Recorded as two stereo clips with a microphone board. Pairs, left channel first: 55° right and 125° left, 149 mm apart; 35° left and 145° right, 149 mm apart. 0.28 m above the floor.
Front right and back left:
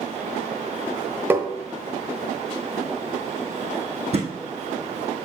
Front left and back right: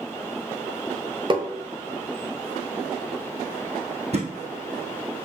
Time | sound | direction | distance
1.3 | tapping | 170° right | 1.2 m
4.1 | a thud | 170° left | 2.5 m